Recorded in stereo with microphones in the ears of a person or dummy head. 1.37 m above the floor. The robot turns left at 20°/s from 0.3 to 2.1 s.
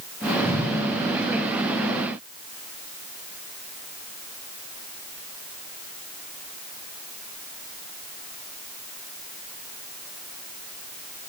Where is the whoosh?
15° right (ahead or behind), 5.5 m; by 0.7 s 20° right (ahead or behind), 5.5 m.